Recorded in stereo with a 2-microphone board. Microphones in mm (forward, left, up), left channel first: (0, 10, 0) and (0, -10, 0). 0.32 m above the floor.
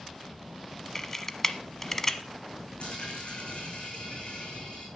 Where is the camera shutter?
15° left (ahead or behind), 1.0 m.